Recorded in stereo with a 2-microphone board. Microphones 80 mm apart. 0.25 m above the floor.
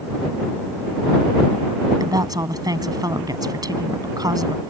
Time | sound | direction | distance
2.0 | a woman speaking | 55° right (ahead or behind) | ?